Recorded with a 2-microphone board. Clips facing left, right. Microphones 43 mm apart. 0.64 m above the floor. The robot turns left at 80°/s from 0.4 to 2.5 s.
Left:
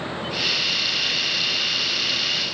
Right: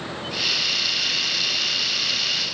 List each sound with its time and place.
Only background noise.